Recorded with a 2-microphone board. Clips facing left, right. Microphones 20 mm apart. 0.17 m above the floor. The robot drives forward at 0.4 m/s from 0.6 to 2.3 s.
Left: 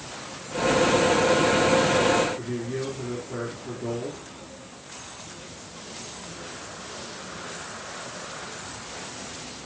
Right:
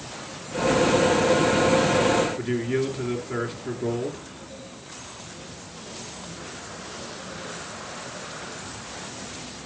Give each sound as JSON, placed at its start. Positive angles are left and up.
{"t": 2.4, "sound": "a man speaking", "side_deg": -55, "distance_m": 3.0}